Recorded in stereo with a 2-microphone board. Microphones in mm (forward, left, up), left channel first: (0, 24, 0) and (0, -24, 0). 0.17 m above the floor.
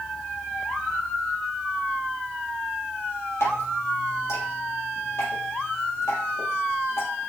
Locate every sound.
3.4 s dripping: 70° left (ahead or behind), 3.5 m